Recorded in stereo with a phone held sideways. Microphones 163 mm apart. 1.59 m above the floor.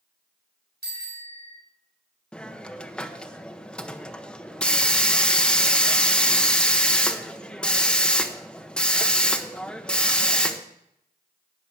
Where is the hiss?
5° left (ahead or behind), 1.1 m.